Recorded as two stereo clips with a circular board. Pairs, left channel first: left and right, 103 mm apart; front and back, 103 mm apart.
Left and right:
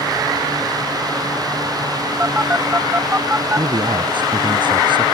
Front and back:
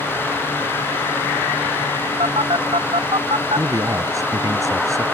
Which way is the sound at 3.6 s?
125° right.